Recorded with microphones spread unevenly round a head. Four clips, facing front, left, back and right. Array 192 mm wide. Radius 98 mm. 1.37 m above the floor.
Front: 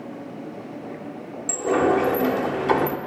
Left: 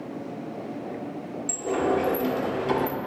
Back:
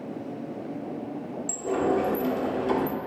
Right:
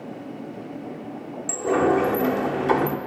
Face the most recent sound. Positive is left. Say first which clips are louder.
# right 5 dB, front 6 dB
turn(degrees=-30)